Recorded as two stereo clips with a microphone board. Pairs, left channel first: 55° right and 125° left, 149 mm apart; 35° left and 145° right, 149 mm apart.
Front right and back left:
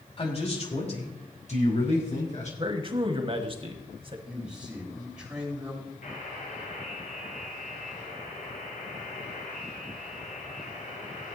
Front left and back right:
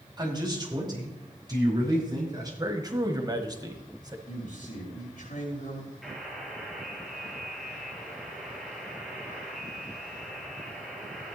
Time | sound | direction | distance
0.2 | a man speaking | 95° right | 2.5 m
2.6 | a man speaking | 160° left | 1.5 m
4.3 | a man speaking | 40° left | 5 m
6.0 | a buzzer | 55° right | 4 m